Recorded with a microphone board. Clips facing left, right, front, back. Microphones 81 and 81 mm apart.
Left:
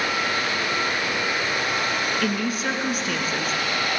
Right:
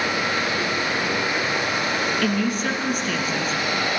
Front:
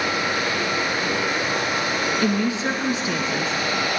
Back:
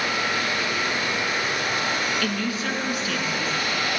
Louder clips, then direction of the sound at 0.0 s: Right 1 dB, front 2 dB; 30° right.